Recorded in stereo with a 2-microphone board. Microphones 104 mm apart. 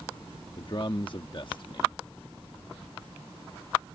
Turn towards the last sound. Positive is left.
turn(degrees=50)  # may be behind; listen again after turning